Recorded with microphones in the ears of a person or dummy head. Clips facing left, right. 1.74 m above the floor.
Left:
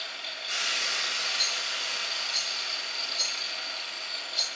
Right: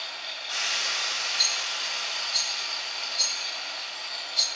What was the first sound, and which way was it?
A machine running, 35° left (ahead or behind).